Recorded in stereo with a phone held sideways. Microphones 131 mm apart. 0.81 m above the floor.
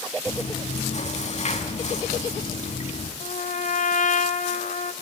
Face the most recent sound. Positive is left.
turn(degrees=80)